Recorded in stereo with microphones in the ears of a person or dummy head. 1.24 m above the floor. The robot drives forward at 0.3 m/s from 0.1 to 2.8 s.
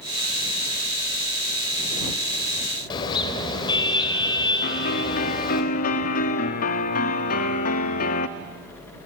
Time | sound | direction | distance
2.9 | a car horn | 20° left (ahead or behind) | 3.5 m
4.6 | a piano | 55° left (ahead or behind) | 1.3 m